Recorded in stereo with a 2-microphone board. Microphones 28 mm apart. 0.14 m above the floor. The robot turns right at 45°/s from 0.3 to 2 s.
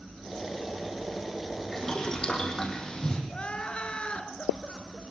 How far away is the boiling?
About 5.5 m.